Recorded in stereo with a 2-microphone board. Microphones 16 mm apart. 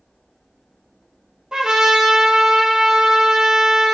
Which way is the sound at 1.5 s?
60° right (ahead or behind).